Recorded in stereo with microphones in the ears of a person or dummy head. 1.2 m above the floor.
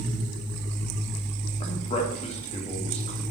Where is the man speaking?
35° left (ahead or behind), 2 m.